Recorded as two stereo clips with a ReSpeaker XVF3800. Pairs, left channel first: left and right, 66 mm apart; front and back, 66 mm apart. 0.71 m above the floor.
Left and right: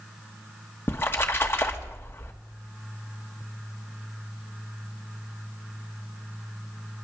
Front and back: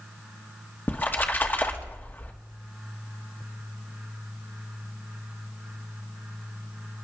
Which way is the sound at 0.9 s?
50° left.